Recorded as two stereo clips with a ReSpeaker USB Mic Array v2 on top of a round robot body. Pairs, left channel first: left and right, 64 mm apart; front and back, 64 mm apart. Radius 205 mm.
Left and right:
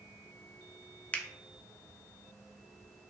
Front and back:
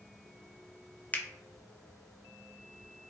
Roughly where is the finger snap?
Ahead left.